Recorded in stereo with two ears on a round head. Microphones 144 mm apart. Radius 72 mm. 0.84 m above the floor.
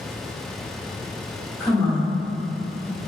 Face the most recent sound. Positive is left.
turn(degrees=15)  # may be behind; listen again after turning